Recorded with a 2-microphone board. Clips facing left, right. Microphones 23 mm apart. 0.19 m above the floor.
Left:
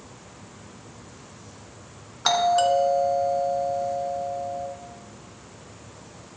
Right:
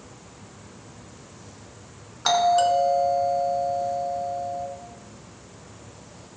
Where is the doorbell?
5° left (ahead or behind), 2 m.